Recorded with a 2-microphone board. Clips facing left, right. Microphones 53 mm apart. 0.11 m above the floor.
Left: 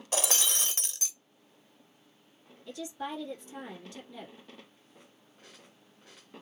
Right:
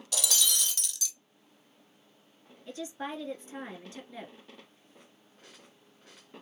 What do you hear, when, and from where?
0.1 s breaking glass: 35° left (ahead or behind), 0.5 m
2.7 s a woman speaking: 30° right (ahead or behind), 1.9 m